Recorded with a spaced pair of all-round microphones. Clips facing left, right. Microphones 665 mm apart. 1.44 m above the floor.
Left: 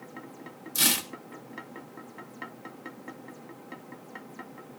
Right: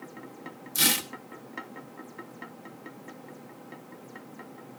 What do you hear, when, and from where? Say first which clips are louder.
0.8 s tearing paper: right 1 dB; centre (ahead or behind), 1.1 m